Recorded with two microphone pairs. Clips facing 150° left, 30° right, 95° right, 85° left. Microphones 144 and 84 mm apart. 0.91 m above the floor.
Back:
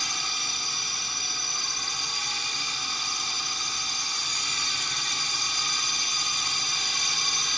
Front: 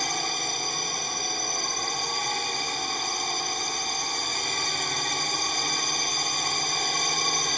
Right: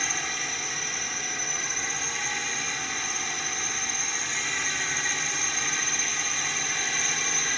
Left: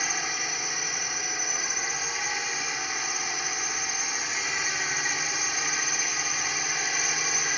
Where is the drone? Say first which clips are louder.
Front 8 dB, left 1 dB; 5° left.